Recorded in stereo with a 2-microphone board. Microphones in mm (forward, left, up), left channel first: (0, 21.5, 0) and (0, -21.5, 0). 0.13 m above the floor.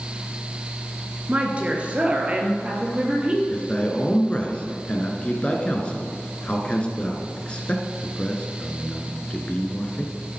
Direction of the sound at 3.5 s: 30° left (ahead or behind).